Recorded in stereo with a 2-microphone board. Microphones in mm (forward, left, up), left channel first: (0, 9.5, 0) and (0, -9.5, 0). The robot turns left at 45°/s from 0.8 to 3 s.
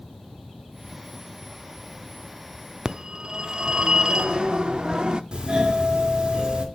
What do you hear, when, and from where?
2.9 s a phone ringing: 40° right (ahead or behind), 0.5 m; by 5.2 s 45° right (ahead or behind), 0.5 m
5.3 s a doorbell: 45° right (ahead or behind), 1.7 m